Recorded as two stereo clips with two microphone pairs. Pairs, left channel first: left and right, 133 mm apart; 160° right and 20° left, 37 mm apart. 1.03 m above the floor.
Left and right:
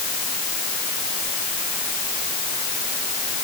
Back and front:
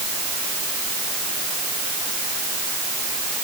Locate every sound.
Only background noise.